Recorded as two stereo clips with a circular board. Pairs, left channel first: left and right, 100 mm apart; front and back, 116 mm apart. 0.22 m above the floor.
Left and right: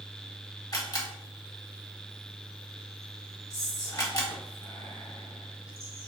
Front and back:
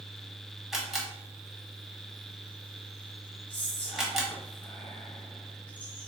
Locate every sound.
0.7 s a camera shutter: 95° left, 1.3 m
3.5 s whispering: 70° left, 1.6 m